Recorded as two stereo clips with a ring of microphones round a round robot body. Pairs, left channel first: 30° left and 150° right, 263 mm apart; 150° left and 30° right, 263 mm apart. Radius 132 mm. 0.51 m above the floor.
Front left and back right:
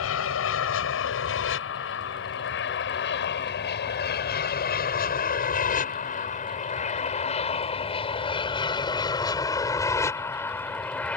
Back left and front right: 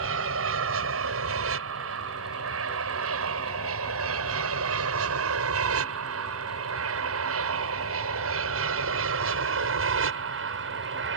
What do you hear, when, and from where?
0.0 s an aircraft: straight ahead; by 11.2 s 55° right